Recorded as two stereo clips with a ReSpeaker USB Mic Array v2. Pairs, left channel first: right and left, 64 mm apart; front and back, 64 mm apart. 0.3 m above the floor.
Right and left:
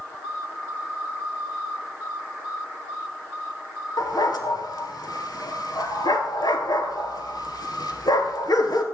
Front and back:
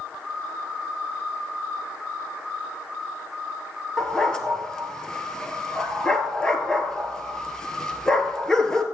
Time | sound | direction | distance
4.0 | a dog barking | 80° right | 1.8 m